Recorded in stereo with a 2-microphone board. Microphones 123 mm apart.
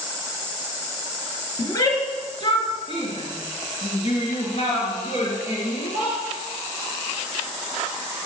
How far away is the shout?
About 2.5 m.